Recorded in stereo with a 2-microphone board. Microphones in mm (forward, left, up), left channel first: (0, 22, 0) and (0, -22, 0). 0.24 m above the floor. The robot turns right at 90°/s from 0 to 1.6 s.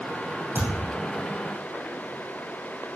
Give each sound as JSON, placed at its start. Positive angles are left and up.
{"t": 0.6, "sound": "a thud", "azimuth_deg": -110, "distance_m": 4.0}